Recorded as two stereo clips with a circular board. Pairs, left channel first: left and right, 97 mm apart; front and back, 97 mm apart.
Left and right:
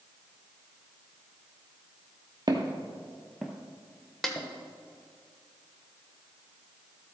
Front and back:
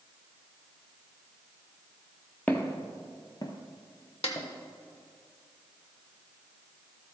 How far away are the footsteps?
About 1.0 m.